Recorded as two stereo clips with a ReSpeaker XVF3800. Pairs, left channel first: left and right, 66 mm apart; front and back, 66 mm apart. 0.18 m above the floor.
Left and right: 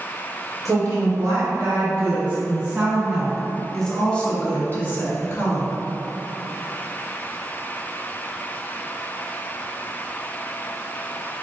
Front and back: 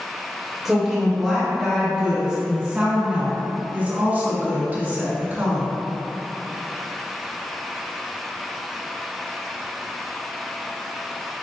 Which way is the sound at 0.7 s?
90° right.